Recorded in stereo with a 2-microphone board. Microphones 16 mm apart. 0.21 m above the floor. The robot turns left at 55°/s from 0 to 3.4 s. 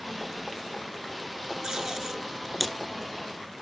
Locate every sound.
1.6 s tape being pulled: 60° right (ahead or behind), 3 m; by 2.8 s centre (ahead or behind), 3 m